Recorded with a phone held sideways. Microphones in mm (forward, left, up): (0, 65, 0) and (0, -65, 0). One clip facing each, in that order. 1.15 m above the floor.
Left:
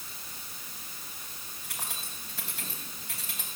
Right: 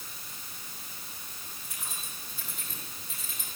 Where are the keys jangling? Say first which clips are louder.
Left 4 dB; 80° left, 5.5 m.